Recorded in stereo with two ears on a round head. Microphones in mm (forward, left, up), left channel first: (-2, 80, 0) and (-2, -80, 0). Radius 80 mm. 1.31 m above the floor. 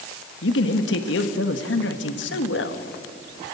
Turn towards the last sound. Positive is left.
turn(degrees=70)  # may be behind; listen again after turning